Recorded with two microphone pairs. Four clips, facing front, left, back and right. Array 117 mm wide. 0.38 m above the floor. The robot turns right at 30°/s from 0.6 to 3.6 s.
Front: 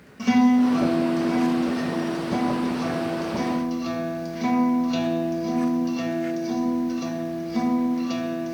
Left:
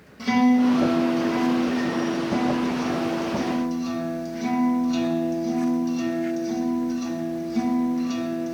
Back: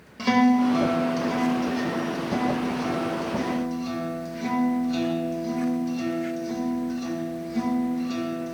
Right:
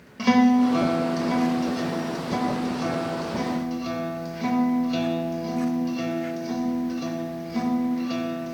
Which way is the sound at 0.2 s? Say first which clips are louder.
Right 1 dB, front 2 dB; 125° right.